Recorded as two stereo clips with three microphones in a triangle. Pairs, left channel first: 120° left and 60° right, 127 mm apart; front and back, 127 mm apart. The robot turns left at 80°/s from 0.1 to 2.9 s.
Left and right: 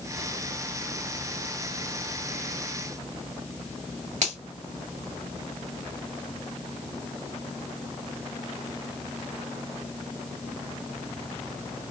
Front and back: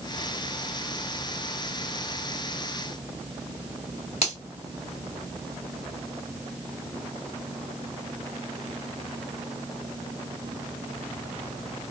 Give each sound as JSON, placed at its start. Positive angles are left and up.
{"t": 4.2, "sound": "a finger snap", "azimuth_deg": -40, "distance_m": 2.0}